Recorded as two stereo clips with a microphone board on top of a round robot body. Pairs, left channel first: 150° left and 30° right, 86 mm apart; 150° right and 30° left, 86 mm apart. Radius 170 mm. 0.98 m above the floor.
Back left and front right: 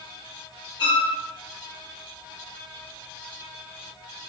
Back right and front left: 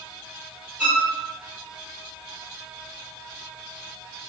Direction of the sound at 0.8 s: 115° left.